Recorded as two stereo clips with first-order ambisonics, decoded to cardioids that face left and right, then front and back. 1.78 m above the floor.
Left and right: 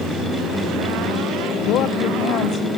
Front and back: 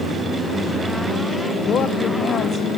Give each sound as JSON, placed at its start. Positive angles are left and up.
{"t": 1.6, "sound": "a woman speaking", "azimuth_deg": 55, "distance_m": 1.1}